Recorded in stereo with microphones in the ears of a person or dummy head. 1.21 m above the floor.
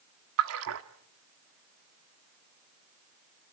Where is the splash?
75° right (ahead or behind), 1.5 m.